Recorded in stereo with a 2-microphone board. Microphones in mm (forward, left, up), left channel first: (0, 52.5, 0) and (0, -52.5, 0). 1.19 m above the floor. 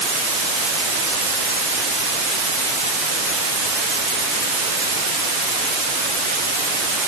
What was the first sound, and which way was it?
Only background noise.